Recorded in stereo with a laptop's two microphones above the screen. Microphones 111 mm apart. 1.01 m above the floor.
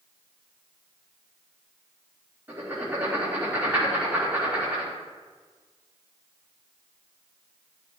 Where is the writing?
20° right (ahead or behind), 1.9 m.